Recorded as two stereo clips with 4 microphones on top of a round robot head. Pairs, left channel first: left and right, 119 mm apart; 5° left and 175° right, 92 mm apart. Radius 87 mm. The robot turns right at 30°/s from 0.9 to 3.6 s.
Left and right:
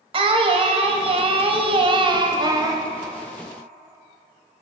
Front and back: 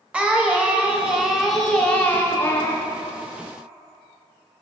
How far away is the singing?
About 0.7 m.